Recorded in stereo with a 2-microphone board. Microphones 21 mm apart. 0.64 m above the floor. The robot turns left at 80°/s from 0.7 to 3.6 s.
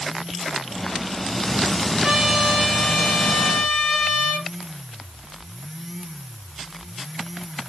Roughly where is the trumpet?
Behind right.